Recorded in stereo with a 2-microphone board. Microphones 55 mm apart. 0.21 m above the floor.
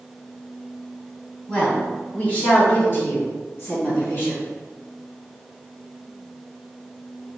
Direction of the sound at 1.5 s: 20° left (ahead or behind).